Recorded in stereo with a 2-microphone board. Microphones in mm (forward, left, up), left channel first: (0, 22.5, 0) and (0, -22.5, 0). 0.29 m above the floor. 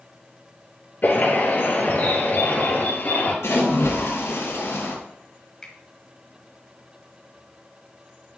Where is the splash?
70° left (ahead or behind), 3 m.